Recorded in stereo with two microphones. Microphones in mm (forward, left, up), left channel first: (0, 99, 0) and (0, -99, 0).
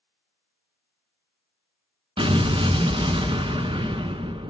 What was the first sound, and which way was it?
An explosion, 25° right (ahead or behind).